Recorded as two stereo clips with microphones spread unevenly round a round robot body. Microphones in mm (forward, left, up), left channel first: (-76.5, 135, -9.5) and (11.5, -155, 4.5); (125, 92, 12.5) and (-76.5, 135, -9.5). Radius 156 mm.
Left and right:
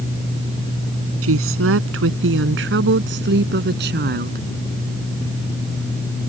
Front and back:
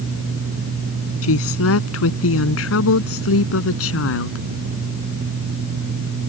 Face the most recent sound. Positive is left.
turn(degrees=-10)